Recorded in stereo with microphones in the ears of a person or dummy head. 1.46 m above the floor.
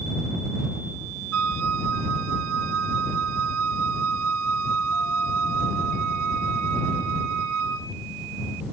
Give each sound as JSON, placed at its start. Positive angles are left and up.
{"t": 1.3, "sound": "a flute", "side_deg": -80}